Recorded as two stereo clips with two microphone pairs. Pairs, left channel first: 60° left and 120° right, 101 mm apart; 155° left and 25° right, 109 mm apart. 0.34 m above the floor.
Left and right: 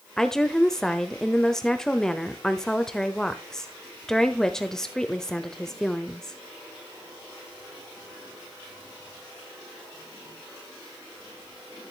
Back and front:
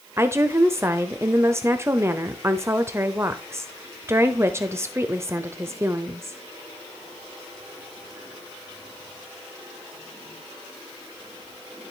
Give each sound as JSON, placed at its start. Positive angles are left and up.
{"t": 0.2, "sound": "a woman speaking", "azimuth_deg": -15, "distance_m": 0.9}